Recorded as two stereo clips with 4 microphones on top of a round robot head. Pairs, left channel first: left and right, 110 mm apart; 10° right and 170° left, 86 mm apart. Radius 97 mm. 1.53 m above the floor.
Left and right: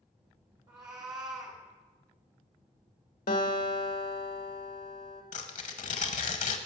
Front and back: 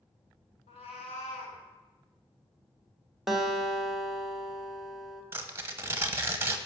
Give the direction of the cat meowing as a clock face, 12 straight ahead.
1 o'clock.